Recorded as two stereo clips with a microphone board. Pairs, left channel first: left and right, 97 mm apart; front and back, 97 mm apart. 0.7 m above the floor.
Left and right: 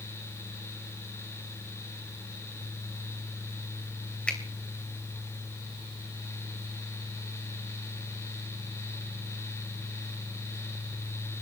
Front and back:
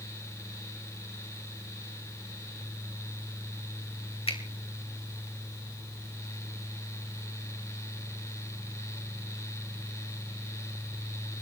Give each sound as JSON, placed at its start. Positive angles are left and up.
{"t": 4.3, "sound": "a finger snap", "azimuth_deg": 10, "distance_m": 2.5}